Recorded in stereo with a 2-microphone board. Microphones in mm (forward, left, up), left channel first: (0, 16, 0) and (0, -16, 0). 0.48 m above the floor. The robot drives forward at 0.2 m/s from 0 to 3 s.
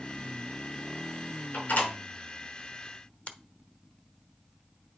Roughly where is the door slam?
Left.